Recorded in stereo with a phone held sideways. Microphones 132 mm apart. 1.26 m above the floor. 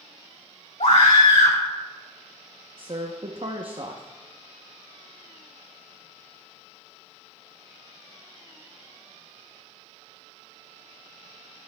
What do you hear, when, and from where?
0.8 s a scream: 70° left (ahead or behind), 2.5 m
2.8 s a woman speaking: 45° right (ahead or behind), 0.7 m